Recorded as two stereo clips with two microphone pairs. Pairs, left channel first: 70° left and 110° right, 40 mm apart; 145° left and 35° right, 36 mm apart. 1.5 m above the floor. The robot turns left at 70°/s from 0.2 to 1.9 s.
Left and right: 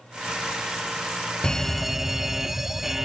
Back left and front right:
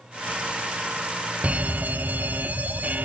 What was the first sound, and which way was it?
A fire alarm, straight ahead.